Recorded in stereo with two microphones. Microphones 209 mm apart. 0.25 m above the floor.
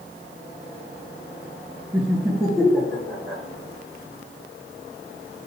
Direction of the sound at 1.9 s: 5° right (ahead or behind).